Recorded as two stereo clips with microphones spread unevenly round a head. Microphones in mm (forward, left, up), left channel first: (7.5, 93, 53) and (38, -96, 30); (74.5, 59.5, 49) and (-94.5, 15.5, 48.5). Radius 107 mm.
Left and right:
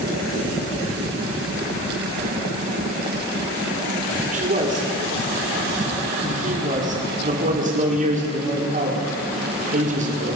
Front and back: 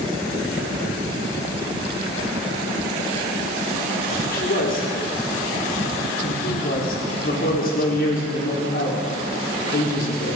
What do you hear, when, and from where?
4.3 s a man speaking: 30° right, 5 m